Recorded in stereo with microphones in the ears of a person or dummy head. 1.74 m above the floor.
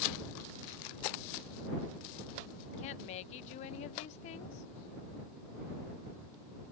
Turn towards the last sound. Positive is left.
turn(degrees=45)  # may be behind; listen again after turning